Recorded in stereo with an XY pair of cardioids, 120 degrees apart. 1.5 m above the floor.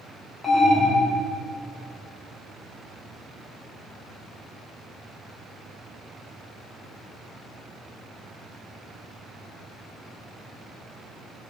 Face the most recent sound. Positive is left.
turn(degrees=25)